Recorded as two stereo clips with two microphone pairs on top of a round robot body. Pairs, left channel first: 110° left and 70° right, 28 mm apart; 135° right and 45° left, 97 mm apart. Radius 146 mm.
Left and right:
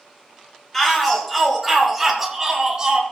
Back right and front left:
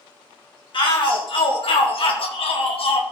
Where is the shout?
165° right, 3.5 m; by 3.0 s 130° right, 2.0 m.